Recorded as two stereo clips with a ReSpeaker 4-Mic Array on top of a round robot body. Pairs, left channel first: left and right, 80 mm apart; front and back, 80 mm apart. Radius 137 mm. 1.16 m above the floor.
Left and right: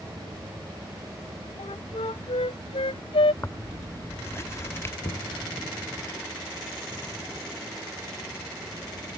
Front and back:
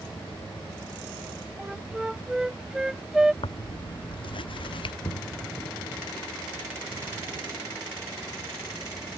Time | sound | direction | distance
1.6 | a flute | 95° left | ?
3.4 | tearing paper | 30° left | ?
5.0 | knocking | 60° left | ?